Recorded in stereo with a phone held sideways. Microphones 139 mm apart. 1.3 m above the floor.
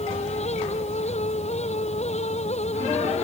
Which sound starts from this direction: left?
A fan, at 0.0 s.